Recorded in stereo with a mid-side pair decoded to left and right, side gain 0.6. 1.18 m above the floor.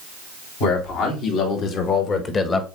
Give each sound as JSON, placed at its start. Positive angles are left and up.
{"t": 0.6, "sound": "a man speaking", "azimuth_deg": 70, "distance_m": 4.0}